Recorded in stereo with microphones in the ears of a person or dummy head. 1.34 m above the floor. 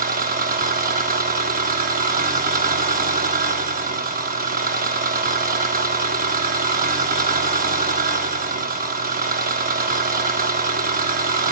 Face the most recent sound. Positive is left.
turn(degrees=-40)  # may be behind; listen again after turning